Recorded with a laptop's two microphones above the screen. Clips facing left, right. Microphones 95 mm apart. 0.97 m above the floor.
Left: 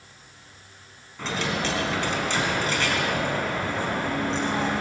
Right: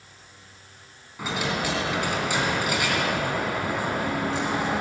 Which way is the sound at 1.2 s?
10° right (ahead or behind).